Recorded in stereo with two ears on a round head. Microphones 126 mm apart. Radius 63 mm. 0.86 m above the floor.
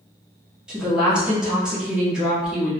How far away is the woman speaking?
About 1.1 m.